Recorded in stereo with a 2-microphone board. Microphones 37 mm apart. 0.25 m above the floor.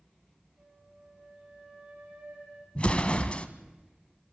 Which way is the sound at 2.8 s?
35° left (ahead or behind).